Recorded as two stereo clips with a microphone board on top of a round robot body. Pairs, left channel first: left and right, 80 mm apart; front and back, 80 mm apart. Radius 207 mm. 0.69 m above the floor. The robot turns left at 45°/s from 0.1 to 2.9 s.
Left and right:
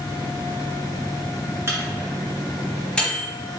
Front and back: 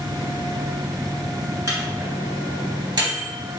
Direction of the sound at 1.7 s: 135° right.